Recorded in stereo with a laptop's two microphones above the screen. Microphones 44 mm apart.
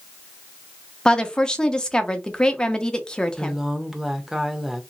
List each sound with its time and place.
1.1 s a woman speaking: 20° left (ahead or behind), 0.9 m
3.4 s a woman speaking: 5° right (ahead or behind), 1.0 m